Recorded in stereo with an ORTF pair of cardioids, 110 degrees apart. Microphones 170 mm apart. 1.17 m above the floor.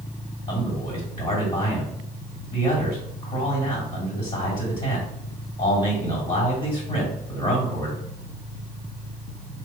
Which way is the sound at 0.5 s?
30° left.